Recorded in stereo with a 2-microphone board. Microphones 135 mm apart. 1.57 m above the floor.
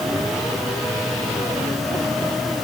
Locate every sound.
Only background noise.